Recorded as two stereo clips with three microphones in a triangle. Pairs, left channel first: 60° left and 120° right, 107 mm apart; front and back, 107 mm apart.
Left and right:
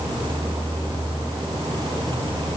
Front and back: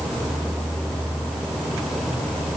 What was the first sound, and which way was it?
Only background noise.